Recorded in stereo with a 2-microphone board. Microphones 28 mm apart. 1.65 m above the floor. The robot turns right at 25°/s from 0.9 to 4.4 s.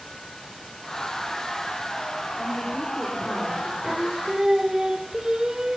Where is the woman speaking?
Straight ahead, 5 m; by 3.7 s 35° left, 5 m.